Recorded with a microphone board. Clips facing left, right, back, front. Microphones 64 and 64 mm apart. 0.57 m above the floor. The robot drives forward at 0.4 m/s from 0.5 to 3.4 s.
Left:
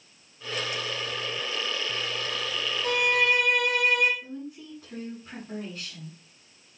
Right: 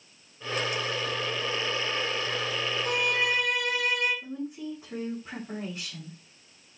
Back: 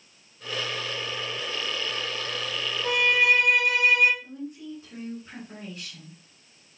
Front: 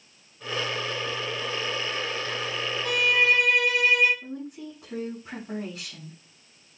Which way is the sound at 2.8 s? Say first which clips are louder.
Left 5 dB, back 1 dB; 115° left.